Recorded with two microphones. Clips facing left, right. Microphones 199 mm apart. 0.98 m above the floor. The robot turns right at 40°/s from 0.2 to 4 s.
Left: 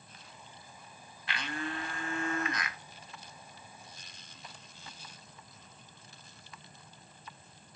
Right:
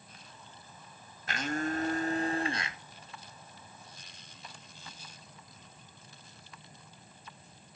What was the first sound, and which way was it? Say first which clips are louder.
A blender: right 6 dB; 95° right.